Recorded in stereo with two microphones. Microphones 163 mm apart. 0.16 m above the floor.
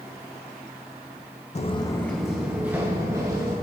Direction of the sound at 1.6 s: 45° left (ahead or behind).